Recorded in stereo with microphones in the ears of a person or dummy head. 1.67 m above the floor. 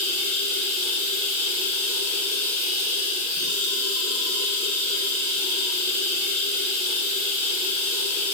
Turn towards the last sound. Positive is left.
turn(degrees=-35)  # may be behind; listen again after turning